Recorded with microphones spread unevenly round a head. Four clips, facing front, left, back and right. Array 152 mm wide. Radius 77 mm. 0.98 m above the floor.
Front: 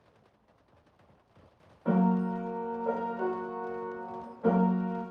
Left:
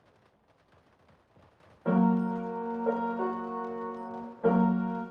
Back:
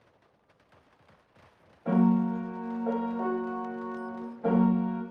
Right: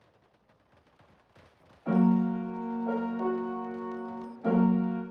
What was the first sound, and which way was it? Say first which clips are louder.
A piano: right 1 dB, back 3 dB; 90° left.